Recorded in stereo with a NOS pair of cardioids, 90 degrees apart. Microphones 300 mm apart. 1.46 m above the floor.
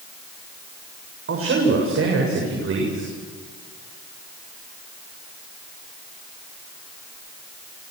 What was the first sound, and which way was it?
A man speaking, 45° right.